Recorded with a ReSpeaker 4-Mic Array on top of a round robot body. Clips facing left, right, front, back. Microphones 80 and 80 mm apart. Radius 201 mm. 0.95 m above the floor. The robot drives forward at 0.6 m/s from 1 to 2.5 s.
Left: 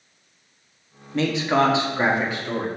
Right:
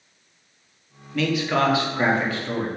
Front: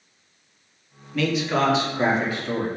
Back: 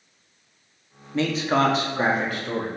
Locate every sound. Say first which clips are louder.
1.1 s a man speaking: left 2 dB, back 1 dB; 130° left, 0.8 m; by 2.7 s 165° left, 1.3 m